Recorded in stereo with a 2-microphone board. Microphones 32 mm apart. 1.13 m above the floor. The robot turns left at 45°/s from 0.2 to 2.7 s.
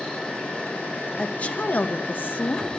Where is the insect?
150° left, 3.5 m; by 2.8 s 40° left, 3.5 m.